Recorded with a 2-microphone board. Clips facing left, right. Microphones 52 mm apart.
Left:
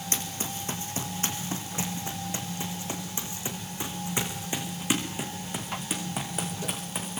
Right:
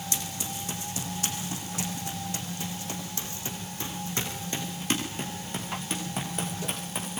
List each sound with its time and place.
0.1 s running footsteps: 40° left (ahead or behind), 5.5 m; by 7.2 s centre (ahead or behind), 7 m